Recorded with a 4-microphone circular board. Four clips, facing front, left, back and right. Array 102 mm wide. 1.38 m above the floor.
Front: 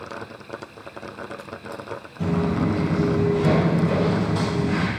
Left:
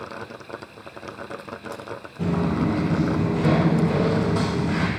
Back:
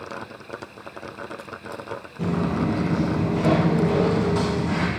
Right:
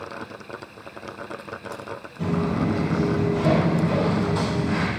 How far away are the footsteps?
About 1.7 m.